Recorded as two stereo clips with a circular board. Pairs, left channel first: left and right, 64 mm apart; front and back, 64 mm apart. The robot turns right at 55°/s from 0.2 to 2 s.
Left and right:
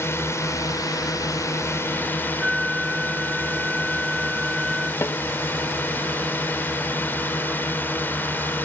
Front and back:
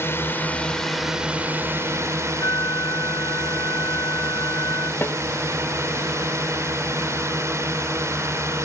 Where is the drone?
45° left; by 8.7 s 145° left.